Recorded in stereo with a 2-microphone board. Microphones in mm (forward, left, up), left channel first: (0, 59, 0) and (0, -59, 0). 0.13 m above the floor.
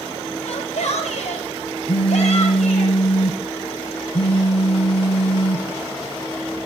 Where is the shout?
70° left (ahead or behind), 6 m; by 2.9 s 75° left (ahead or behind), 9.5 m.